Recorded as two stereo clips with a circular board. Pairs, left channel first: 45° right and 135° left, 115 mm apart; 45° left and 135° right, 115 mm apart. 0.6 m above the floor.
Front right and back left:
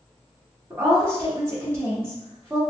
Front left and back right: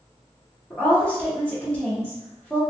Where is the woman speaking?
105° left, 1.1 m.